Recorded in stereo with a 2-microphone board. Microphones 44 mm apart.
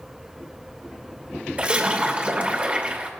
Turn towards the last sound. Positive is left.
turn(degrees=-30)  # may be behind; listen again after turning